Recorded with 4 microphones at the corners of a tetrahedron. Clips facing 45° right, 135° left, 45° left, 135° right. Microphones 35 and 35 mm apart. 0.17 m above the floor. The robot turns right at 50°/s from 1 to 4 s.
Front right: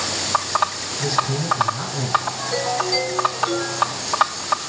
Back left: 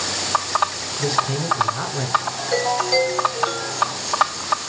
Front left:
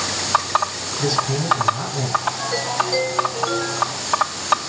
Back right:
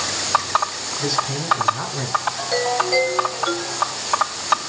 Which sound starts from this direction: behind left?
A man speaking, at 1.0 s.